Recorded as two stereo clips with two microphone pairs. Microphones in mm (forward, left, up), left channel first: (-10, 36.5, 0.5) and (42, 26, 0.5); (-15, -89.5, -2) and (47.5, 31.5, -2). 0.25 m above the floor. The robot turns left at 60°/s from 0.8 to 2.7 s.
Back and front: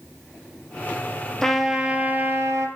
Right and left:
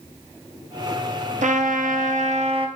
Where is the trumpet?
85° left, 2.5 m; by 2.7 s 10° left, 2.5 m.